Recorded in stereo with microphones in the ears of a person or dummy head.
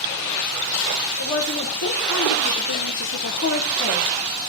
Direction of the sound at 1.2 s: 65° left (ahead or behind).